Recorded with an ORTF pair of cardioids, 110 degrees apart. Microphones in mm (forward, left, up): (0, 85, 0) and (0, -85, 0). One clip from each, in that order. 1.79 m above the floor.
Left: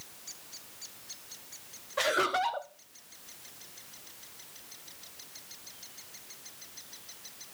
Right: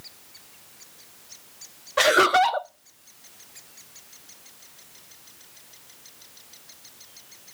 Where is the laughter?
50° right, 0.9 m.